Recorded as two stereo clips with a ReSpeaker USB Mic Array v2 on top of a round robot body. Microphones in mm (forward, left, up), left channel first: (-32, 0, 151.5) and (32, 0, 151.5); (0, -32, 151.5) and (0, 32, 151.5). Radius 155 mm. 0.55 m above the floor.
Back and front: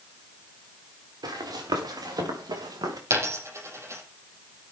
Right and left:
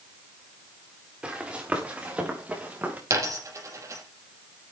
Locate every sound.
1.2 s running footsteps: 15° left, 6.5 m; by 3.0 s 25° left, 6 m
3.1 s a dropped coin: 45° left, 7.5 m